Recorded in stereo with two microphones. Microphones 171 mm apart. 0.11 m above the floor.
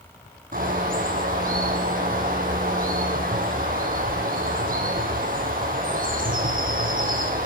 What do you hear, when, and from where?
0.5 s a bird: 55° right (ahead or behind), 0.8 m